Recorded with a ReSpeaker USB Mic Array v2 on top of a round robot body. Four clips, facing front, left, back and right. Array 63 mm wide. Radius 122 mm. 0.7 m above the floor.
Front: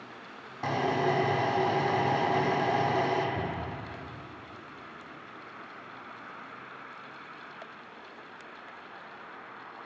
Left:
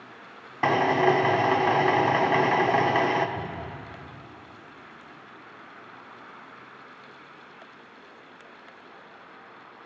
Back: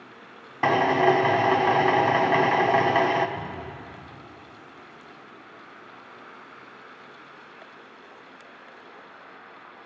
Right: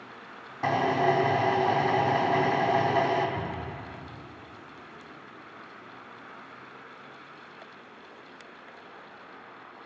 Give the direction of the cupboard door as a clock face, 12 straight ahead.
12 o'clock.